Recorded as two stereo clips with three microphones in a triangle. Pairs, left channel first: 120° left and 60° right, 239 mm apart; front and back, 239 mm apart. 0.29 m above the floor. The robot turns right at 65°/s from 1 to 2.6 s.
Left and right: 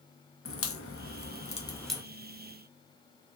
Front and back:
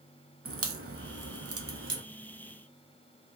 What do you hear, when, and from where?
0.5 s a crack: 150° left, 0.6 m; by 2.0 s 145° right, 0.6 m